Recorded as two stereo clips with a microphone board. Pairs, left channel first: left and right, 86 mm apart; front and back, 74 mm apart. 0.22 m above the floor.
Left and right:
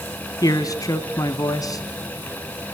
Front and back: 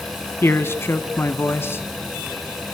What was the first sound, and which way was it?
A man speaking, 50° left.